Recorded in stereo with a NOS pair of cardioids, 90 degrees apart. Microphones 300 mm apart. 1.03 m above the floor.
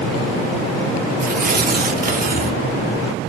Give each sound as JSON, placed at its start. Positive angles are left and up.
{"t": 1.2, "sound": "tearing paper", "azimuth_deg": -30, "distance_m": 2.5}